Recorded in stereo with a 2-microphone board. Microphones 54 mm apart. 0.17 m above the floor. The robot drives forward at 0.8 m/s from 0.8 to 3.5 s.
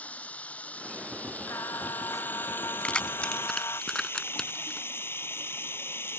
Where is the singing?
65° left (ahead or behind); by 3.8 s 70° left (ahead or behind).